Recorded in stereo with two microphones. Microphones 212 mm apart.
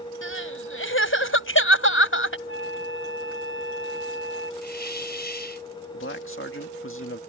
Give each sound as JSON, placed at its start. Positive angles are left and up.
{"t": 0.2, "sound": "crying", "side_deg": 80}
{"t": 2.5, "sound": "a flute", "side_deg": 75}
{"t": 4.6, "sound": "a hiss", "side_deg": 50}
{"t": 5.9, "sound": "a man speaking", "side_deg": 75}